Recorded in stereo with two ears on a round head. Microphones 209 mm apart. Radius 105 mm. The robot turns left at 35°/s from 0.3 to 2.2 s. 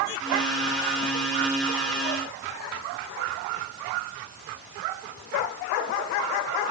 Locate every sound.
Only background noise.